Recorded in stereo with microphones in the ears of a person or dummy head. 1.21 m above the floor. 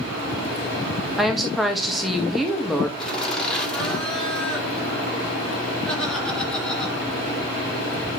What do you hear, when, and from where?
1.2 s a woman speaking: centre (ahead or behind), 1.6 m
3.0 s laughter: 10° left (ahead or behind), 4 m